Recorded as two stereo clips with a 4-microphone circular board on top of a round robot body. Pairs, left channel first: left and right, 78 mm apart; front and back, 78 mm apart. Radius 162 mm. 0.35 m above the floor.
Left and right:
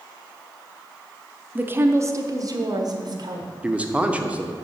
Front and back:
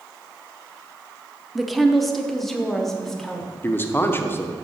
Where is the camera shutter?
I don't hear a camera shutter.